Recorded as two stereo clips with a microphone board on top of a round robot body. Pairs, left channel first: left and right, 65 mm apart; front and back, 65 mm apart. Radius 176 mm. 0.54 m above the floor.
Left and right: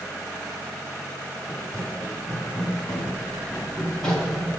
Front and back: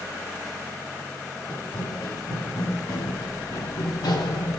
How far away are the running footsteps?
About 4 m.